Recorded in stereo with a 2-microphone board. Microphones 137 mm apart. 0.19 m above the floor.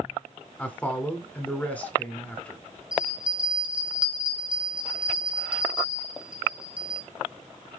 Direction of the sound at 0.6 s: 10° left (ahead or behind).